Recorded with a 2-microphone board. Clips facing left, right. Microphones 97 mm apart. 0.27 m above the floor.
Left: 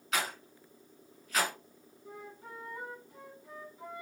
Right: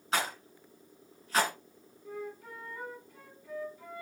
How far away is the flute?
About 1.2 m.